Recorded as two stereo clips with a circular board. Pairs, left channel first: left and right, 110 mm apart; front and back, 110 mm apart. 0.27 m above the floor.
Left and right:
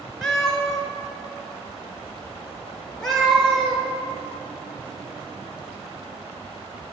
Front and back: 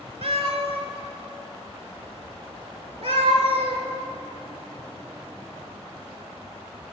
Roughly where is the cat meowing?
Behind.